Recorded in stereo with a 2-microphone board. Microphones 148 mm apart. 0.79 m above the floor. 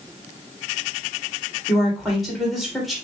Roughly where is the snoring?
No snoring in this recording.